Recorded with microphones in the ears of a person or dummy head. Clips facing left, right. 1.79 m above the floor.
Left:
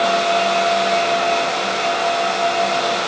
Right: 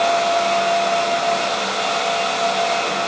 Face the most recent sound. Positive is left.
No sound to turn to.